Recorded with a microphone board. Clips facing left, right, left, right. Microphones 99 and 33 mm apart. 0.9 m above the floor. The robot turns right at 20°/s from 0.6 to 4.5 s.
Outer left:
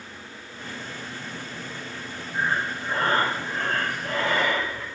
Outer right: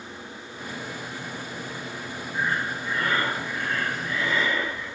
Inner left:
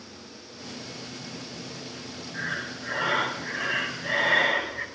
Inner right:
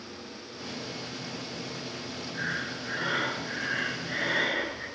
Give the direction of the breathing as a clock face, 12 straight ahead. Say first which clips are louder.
Outer left 1 dB, inner left 1 dB; 11 o'clock.